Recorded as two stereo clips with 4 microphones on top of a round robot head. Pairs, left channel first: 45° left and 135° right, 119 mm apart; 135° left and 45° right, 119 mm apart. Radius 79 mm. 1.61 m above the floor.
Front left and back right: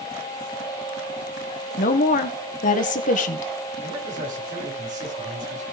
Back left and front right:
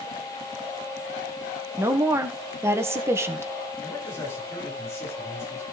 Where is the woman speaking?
25° left, 1.6 m.